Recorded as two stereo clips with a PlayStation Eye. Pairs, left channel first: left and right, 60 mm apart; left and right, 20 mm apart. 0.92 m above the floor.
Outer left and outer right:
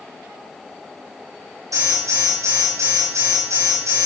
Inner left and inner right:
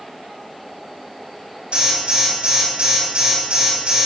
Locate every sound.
1.7 s an alarm: 70° right (ahead or behind), 7 m